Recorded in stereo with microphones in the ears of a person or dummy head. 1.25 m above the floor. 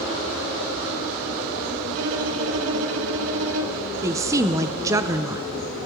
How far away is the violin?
About 1.3 m.